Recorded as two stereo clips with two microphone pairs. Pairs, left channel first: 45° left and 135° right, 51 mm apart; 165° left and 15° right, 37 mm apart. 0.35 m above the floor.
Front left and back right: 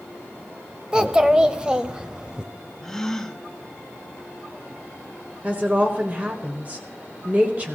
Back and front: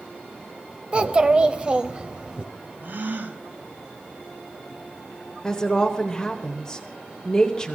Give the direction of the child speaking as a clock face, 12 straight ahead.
2 o'clock.